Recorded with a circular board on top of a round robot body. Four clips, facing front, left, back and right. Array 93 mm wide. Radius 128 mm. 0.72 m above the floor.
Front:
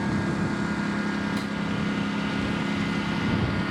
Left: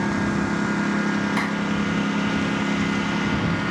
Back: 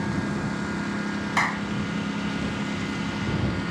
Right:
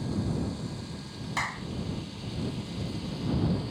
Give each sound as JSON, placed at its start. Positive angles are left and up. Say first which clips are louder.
{"t": 0.0, "sound": "a lawn mower", "louder": "left 9 dB, front 1 dB", "azimuth_deg": 90}
{"t": 1.4, "sound": "a clap", "louder": "left 10 dB, back 3 dB", "azimuth_deg": 170}